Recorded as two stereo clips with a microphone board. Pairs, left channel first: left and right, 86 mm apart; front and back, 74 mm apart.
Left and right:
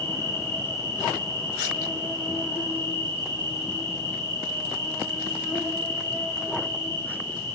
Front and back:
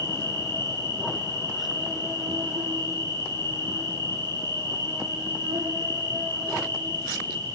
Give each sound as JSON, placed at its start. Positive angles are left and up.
{"t": 0.0, "sound": "an insect", "azimuth_deg": 145, "distance_m": 7.5}